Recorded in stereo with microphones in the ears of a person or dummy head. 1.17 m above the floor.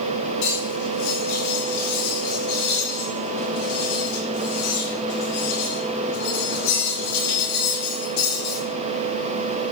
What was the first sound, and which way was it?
Cutlery clinking, 80° left.